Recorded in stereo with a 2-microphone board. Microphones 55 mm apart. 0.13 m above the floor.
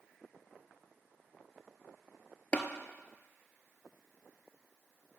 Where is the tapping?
20° left (ahead or behind), 0.7 m.